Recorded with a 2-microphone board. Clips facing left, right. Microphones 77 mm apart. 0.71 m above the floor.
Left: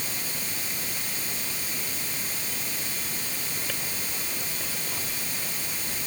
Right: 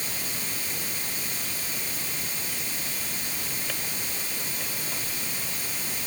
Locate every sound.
Only background noise.